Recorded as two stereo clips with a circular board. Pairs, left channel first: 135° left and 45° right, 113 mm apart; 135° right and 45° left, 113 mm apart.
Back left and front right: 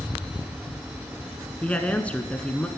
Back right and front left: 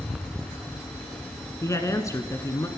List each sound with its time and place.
1.6 s a woman speaking: 160° right, 1.2 m